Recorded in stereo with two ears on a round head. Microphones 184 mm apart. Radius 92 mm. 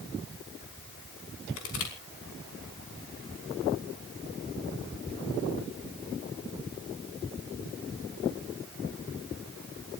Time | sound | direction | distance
1.6 | crushing | 70° left (ahead or behind) | 5.5 m